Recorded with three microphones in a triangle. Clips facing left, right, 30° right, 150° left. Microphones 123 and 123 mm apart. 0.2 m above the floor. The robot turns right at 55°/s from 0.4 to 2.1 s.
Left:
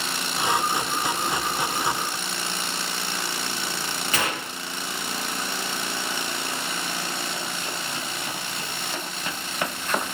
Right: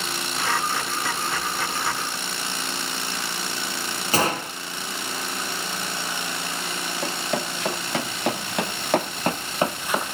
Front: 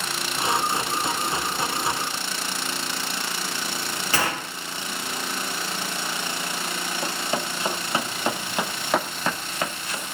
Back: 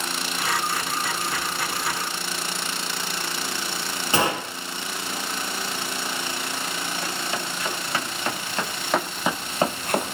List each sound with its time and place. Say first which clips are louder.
4.1 s a gunshot: right 7 dB, back 4 dB; 145° right, 2 m
7.0 s running footsteps: right 5 dB, front 2 dB; 90° right, 3 m; by 10.2 s 175° left, 0.8 m